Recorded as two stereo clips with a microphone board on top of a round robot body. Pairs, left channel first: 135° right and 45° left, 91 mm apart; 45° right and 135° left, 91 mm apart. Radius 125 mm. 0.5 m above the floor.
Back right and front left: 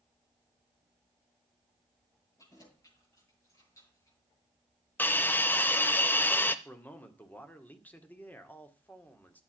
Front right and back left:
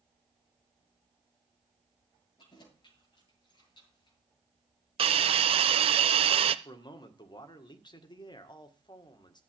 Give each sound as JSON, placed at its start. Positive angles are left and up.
{"t": 2.4, "sound": "keys jangling", "azimuth_deg": -80, "distance_m": 10.0}
{"t": 5.0, "sound": "a hiss", "azimuth_deg": 155, "distance_m": 0.6}
{"t": 6.7, "sound": "a man speaking", "azimuth_deg": -65, "distance_m": 2.0}